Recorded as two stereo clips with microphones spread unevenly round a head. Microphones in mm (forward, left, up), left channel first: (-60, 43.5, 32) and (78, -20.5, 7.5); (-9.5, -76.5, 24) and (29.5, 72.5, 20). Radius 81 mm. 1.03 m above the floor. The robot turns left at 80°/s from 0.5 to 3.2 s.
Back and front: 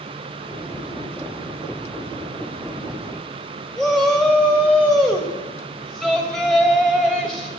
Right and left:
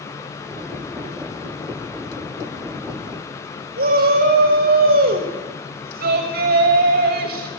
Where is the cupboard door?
No cupboard door in this recording.